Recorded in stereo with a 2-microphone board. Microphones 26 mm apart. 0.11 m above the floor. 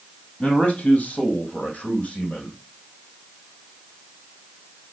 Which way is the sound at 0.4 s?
60° left (ahead or behind).